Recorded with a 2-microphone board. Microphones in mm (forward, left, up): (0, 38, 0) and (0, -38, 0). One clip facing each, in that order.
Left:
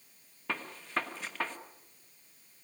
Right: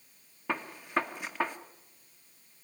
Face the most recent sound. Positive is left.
turn(degrees=-15)  # may be behind; listen again after turning